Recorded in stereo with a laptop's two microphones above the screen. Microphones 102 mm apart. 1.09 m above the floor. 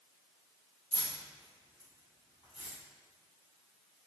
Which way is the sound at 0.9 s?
85° left.